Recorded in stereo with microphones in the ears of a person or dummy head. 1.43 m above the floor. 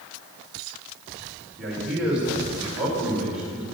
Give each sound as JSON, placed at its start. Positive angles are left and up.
{"t": 1.6, "sound": "a man speaking", "side_deg": -5, "distance_m": 4.5}